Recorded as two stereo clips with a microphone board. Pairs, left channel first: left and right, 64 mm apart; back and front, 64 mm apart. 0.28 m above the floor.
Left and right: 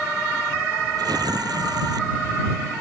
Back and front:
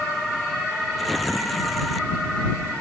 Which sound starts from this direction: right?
Tearing paper, at 1.0 s.